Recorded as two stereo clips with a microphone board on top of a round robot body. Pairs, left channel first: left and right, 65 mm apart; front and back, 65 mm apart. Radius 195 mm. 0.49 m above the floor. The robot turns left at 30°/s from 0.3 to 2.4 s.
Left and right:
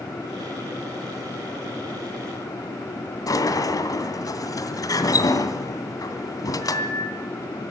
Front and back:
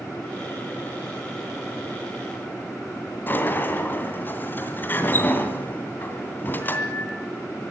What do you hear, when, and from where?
3.3 s a sliding door: 60° left, 2.5 m